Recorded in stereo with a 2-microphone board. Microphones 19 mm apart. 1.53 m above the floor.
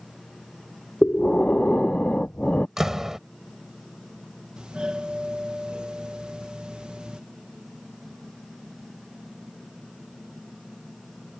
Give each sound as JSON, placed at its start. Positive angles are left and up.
{"t": 1.0, "sound": "breathing", "side_deg": 80}
{"t": 2.8, "sound": "a door slam", "side_deg": -25}
{"t": 4.6, "sound": "a doorbell", "side_deg": -55}